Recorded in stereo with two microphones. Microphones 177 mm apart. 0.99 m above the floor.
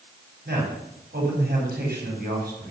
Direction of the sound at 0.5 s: 60° right (ahead or behind).